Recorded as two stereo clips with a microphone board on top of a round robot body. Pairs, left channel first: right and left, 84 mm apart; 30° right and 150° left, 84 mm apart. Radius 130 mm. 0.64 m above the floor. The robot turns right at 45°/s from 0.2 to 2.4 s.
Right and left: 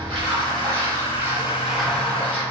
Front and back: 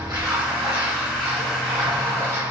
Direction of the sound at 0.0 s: 105° left.